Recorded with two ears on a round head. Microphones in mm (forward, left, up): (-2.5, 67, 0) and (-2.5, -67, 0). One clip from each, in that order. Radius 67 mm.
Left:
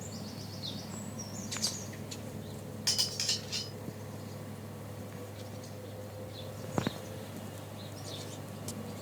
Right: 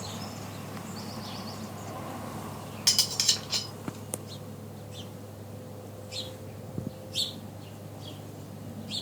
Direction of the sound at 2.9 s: 30° right (ahead or behind).